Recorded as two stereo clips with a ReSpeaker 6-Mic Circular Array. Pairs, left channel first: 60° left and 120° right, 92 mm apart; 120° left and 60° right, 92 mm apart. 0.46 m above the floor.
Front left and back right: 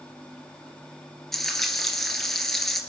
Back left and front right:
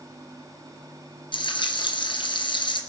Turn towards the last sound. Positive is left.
turn(degrees=145)